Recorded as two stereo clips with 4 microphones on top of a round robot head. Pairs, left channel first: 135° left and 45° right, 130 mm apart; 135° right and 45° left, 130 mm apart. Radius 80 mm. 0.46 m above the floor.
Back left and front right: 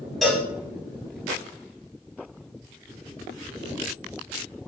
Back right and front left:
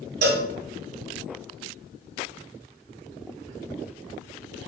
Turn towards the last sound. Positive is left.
turn(degrees=45)